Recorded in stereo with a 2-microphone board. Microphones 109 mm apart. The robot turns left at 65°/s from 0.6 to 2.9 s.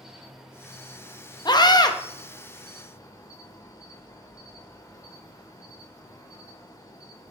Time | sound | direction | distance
0.0 | an insect | 175° right | 0.7 m
1.4 | a scream | 100° left | 0.6 m